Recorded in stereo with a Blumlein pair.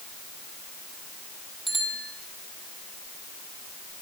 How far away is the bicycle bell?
About 7 m.